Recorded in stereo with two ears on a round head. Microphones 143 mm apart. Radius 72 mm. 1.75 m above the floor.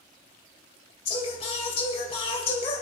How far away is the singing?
About 3 m.